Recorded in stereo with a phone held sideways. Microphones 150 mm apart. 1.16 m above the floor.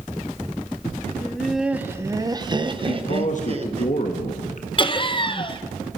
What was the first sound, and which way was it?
Laughter, 10° left (ahead or behind).